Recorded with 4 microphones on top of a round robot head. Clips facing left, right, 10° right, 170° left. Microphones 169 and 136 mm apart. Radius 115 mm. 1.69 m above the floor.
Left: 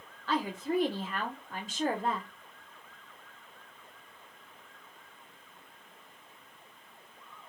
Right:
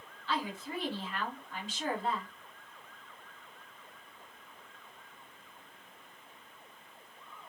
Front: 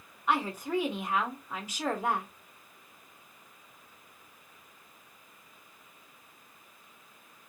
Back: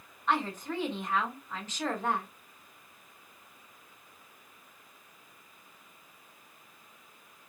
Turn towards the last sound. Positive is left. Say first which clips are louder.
# left 6 dB, front 2 dB
turn(degrees=60)